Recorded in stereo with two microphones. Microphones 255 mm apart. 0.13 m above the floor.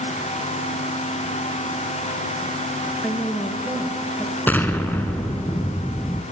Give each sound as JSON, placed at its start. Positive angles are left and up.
{"t": 3.0, "sound": "a woman speaking", "side_deg": 5, "distance_m": 2.0}
{"t": 4.5, "sound": "an explosion", "side_deg": 10, "distance_m": 1.1}